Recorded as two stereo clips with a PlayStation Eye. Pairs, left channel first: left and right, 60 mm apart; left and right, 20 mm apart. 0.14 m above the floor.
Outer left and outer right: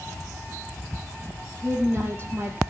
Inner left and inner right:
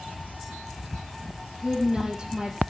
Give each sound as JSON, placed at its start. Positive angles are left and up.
{"t": 1.6, "sound": "a woman speaking", "side_deg": -35, "distance_m": 3.0}